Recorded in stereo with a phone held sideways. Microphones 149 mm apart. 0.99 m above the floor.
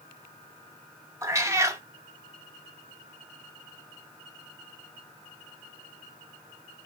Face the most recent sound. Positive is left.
turn(degrees=-20)  # may be behind; listen again after turning